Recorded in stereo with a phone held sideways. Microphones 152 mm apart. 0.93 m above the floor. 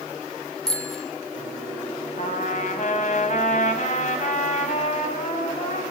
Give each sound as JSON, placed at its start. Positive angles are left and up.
{"t": 0.7, "sound": "a bicycle bell", "side_deg": 5, "distance_m": 4.0}
{"t": 2.2, "sound": "a trumpet", "side_deg": 55, "distance_m": 7.5}